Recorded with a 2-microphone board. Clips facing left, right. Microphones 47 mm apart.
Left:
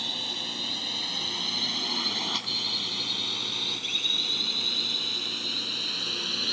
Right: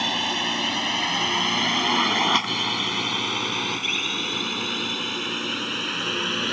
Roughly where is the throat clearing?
No throat clearing in this recording.